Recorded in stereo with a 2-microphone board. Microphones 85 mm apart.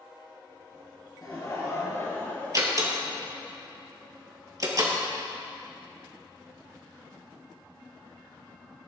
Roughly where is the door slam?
Right.